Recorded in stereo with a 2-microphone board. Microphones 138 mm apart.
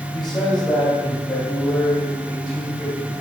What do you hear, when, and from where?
0.1 s a man speaking: 25° left (ahead or behind), 3 m